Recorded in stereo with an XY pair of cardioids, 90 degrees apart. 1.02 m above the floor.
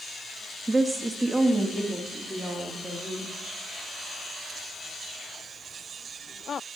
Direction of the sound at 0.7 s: 15° right.